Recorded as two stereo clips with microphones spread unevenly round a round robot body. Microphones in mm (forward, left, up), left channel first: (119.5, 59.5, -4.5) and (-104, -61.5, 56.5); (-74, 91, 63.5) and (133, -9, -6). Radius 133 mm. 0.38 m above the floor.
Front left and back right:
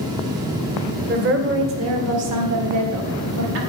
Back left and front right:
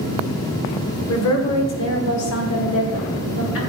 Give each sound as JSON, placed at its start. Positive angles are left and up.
{"t": 1.1, "sound": "a woman speaking", "azimuth_deg": 155, "distance_m": 2.0}